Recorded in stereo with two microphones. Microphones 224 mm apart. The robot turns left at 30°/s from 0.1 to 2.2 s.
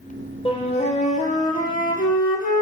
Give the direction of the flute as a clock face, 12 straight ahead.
7 o'clock.